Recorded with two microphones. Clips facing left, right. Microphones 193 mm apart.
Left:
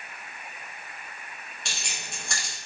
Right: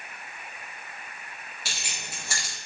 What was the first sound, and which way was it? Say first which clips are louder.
Keys jangling: left 1 dB; 5° right (ahead or behind).